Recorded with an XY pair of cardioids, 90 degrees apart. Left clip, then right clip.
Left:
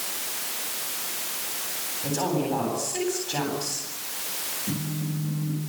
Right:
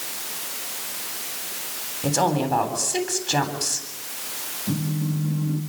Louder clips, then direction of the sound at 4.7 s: Right 3 dB; 35° right.